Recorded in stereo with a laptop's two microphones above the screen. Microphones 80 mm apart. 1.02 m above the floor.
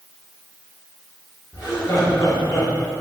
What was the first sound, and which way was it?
Laughter, 40° left (ahead or behind).